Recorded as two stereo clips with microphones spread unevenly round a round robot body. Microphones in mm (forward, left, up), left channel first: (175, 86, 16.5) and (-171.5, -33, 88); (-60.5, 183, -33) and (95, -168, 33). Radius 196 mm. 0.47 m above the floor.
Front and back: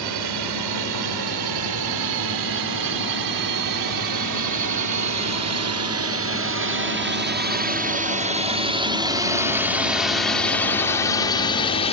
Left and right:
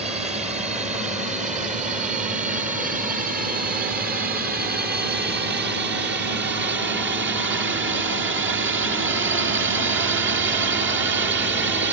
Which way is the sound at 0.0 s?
145° right.